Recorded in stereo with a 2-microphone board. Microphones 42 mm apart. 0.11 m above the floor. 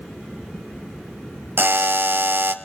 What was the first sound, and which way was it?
A buzzer, 60° right (ahead or behind).